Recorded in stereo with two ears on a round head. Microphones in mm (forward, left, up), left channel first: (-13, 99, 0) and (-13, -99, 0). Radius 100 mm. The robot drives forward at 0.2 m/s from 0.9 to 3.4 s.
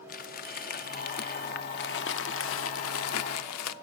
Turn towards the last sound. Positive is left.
turn(degrees=80)